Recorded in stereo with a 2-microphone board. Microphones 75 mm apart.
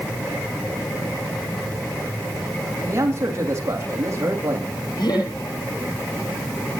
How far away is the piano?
I don't hear a piano.